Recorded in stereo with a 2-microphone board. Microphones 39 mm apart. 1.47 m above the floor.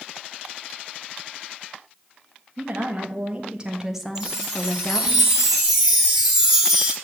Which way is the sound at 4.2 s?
10° right (ahead or behind).